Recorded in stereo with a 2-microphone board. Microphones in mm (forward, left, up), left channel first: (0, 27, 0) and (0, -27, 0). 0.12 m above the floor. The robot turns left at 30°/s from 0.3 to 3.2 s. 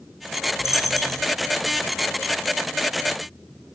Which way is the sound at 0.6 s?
5° right (ahead or behind).